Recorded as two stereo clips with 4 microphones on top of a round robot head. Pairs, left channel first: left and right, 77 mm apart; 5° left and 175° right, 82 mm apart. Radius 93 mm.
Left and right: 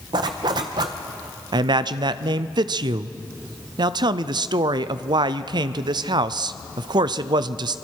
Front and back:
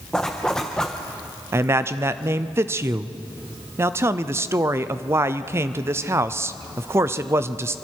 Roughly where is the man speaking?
Behind right.